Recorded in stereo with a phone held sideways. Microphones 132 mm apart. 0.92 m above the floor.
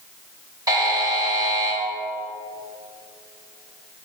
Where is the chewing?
No chewing in this recording.